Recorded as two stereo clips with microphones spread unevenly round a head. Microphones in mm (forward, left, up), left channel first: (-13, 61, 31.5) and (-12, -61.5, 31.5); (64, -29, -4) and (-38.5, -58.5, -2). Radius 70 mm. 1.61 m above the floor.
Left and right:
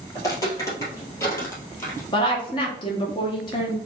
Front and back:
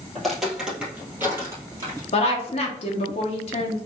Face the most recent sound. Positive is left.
turn(degrees=35)